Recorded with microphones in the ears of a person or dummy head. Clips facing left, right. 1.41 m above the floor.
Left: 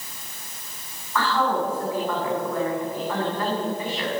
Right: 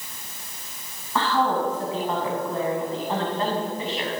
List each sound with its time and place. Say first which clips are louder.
1.1 s a woman speaking: right 1 dB; 30° right (ahead or behind), 9.5 m